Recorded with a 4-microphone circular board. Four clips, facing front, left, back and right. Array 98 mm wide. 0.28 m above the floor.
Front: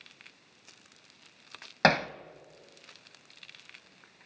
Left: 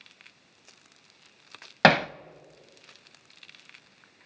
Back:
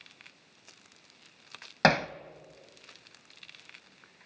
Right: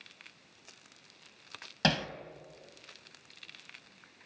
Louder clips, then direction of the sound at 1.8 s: Left 11 dB, even; 95° left.